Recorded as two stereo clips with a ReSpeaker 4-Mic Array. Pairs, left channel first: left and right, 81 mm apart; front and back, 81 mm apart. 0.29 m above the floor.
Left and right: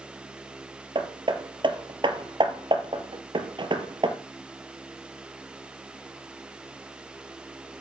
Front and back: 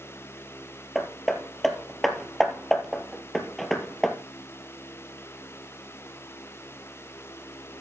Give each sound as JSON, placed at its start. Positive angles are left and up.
{"t": 0.9, "sound": "hammering", "azimuth_deg": -90, "distance_m": 1.4}